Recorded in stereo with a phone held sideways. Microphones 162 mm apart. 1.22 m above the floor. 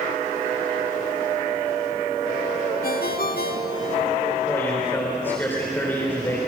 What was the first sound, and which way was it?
A ringtone, 65° left (ahead or behind).